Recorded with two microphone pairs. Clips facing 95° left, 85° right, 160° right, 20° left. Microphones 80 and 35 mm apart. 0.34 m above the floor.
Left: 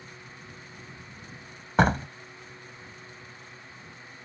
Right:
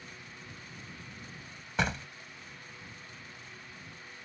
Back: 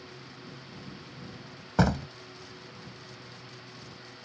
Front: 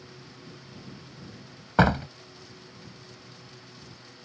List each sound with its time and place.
1.8 s a door slam: 60° left